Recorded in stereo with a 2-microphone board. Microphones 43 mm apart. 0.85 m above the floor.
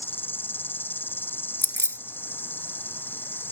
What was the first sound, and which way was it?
An insect, 50° left (ahead or behind).